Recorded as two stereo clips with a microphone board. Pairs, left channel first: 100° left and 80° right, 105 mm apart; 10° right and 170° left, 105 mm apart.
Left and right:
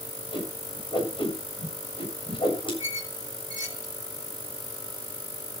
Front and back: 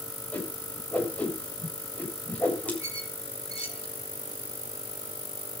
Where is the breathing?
I don't hear breathing.